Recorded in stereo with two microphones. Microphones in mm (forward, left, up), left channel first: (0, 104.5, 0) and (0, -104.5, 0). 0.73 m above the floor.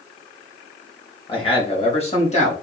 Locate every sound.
1.3 s a man speaking: 25° left (ahead or behind), 3 m; by 2.5 s 30° left (ahead or behind), 4 m